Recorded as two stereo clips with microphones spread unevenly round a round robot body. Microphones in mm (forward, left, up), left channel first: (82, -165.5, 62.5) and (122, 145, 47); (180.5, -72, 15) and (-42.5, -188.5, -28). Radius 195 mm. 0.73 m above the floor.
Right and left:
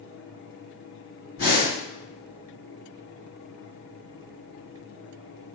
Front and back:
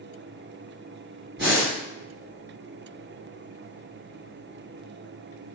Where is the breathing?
135° right, 1.6 m.